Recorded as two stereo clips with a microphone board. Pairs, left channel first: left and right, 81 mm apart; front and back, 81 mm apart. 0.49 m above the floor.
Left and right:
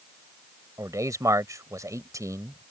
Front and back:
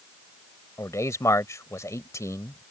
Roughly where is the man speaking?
Ahead right.